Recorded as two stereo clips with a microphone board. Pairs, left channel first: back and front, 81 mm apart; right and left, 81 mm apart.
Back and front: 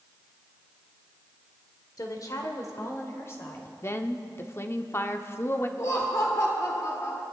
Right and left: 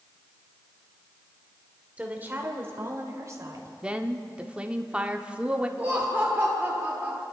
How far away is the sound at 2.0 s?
About 1.8 m.